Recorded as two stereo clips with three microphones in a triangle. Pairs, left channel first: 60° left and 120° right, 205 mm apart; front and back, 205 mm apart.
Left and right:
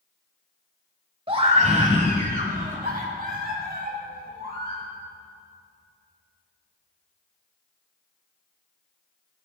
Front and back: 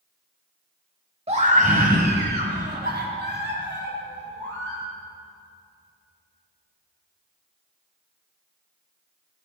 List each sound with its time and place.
1.3 s a scream: 155° right, 1.1 m